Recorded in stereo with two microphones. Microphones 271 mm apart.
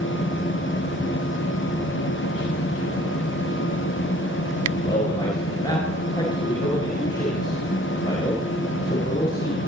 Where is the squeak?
I don't hear a squeak.